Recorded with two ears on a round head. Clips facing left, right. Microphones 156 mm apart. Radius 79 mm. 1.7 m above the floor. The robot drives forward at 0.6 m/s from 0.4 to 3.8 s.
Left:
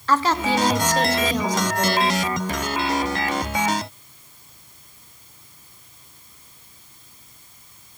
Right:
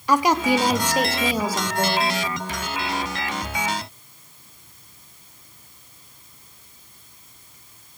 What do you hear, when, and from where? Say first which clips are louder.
0.1 s a woman speaking: right 2 dB; 10° right (ahead or behind), 0.9 m; by 2.1 s 5° right (ahead or behind), 1.9 m